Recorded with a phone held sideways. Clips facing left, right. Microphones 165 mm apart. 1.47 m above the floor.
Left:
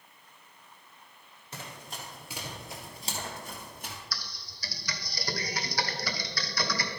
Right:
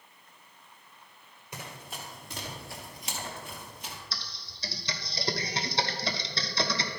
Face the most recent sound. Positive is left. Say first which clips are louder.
# even
turn(degrees=-25)  # may be behind; listen again after turning